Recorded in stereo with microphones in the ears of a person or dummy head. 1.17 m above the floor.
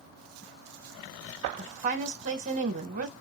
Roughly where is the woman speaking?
Right.